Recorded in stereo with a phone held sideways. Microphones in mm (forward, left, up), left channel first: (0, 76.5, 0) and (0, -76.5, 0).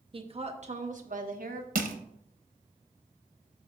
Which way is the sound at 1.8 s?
65° right (ahead or behind).